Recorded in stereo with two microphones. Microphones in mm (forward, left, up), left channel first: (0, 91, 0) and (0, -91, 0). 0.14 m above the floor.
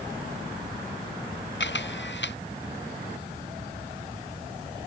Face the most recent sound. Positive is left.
turn(degrees=80)